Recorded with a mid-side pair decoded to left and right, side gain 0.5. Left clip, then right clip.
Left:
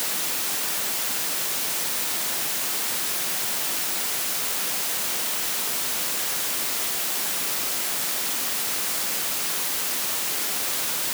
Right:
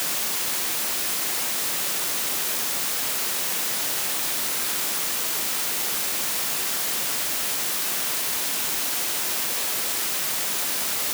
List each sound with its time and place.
Only background noise.